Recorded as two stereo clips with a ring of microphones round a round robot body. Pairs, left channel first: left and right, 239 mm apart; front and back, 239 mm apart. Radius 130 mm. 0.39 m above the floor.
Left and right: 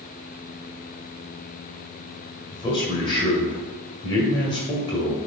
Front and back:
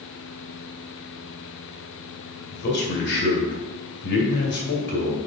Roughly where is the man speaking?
Ahead left.